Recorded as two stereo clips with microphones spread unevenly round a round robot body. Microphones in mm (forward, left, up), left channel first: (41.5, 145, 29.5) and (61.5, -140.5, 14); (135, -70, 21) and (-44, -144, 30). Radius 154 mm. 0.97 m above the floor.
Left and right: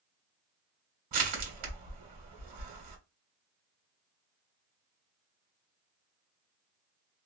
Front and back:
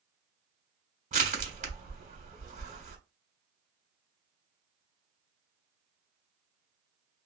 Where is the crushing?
105° right, 1.2 m.